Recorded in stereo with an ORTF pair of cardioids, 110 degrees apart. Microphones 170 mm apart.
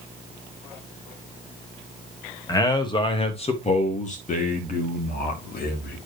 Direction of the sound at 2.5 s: 20° left.